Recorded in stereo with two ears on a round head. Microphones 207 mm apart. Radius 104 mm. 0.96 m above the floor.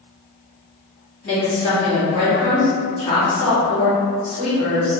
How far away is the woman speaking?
About 1.7 m.